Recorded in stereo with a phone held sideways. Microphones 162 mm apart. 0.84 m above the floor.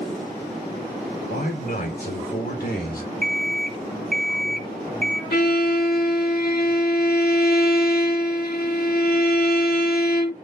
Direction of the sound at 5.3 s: 75° left (ahead or behind).